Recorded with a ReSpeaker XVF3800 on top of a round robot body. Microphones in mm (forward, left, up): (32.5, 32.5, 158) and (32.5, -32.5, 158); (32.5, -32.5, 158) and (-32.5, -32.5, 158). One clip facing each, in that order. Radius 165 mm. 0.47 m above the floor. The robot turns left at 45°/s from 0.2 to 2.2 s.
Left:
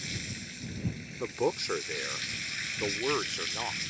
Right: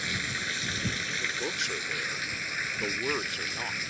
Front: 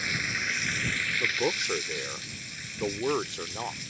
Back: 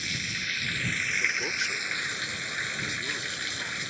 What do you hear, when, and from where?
0.0 s running water: 55° right; by 3.9 s 145° right
1.2 s a man speaking: 65° left; by 3.8 s 20° left